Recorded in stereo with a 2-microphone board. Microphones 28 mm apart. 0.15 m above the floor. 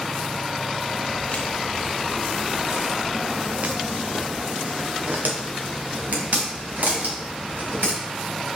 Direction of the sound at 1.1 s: 55° left (ahead or behind).